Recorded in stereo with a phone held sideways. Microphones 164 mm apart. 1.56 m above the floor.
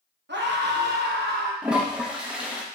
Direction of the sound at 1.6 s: 5° right (ahead or behind).